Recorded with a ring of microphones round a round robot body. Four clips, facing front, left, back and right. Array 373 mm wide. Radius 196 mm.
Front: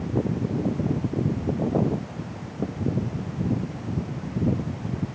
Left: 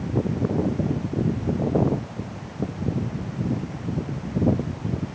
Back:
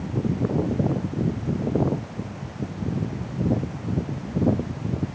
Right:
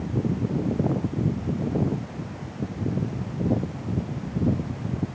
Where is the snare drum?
No snare drum in this recording.